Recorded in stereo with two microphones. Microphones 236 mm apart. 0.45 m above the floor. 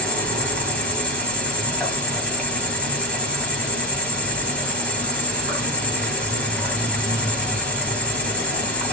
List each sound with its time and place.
0.0 s an insect: 5° left (ahead or behind), 2 m